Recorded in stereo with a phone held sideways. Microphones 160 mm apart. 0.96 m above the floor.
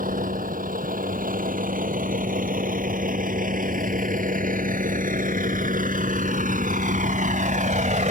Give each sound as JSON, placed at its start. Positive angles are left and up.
{"t": 0.0, "sound": "a vehicle", "side_deg": -60}